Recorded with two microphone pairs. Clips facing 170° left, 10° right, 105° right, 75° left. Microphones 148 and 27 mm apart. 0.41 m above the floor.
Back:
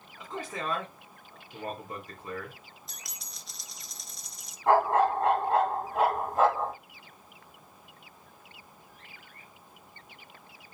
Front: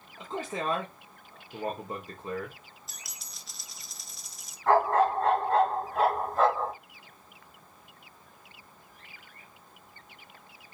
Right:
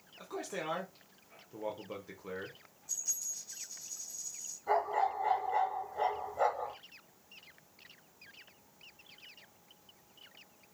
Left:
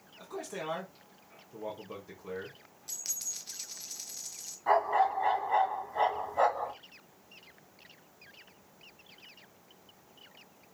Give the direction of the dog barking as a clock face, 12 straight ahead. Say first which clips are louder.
Even, left 5 dB; 9 o'clock.